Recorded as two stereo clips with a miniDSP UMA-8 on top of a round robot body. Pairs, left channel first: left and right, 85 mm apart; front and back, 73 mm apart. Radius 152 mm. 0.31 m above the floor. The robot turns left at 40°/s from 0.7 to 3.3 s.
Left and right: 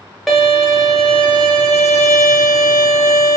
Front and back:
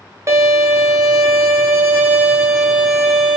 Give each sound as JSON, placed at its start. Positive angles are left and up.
{"t": 0.3, "sound": "a violin", "azimuth_deg": -175, "distance_m": 0.8}